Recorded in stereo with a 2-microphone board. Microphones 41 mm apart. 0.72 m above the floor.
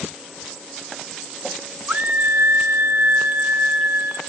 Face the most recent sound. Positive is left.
turn(degrees=-45)  # may be behind; listen again after turning